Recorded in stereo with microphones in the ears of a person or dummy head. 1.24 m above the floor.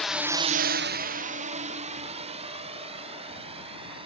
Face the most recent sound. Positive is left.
turn(degrees=-30)  # may be behind; listen again after turning